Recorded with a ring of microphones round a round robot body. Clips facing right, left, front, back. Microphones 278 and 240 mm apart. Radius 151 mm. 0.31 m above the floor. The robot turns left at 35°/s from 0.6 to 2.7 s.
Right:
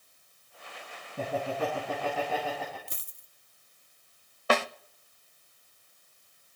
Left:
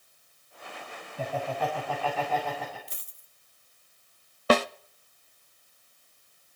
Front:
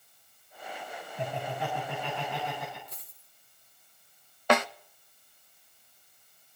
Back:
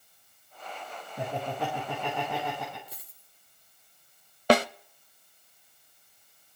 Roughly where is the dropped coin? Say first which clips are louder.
Right 2 dB, back 1 dB; right.